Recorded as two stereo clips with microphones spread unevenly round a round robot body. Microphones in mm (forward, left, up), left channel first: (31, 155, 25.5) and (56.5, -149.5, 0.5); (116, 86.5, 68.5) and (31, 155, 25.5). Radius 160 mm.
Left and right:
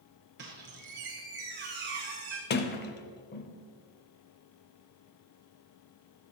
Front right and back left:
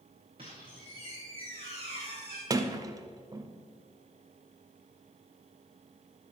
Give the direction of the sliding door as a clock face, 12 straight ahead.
7 o'clock.